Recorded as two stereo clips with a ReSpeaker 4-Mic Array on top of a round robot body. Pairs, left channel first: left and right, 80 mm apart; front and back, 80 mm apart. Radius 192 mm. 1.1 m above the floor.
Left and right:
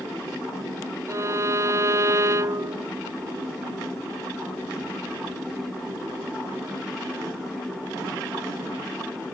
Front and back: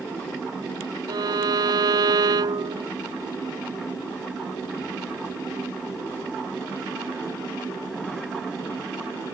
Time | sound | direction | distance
1.1 | a violin | 145° right | ?